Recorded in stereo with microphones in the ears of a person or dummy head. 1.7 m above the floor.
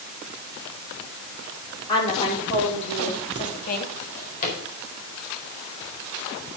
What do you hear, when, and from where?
1.9 s a woman speaking: 25° left (ahead or behind), 4.5 m; by 3.9 s 50° left (ahead or behind), 2.5 m
4.0 s a drawer: 45° left (ahead or behind), 4 m